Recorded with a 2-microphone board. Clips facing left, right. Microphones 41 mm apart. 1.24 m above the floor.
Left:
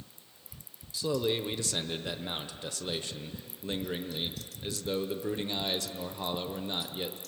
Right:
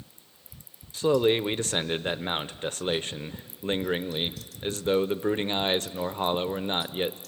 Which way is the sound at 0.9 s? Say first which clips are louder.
Right 8 dB; 45° right (ahead or behind).